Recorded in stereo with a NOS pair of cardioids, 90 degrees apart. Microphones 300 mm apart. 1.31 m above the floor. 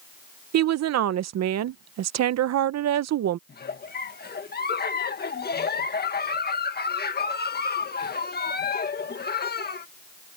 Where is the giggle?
30° left.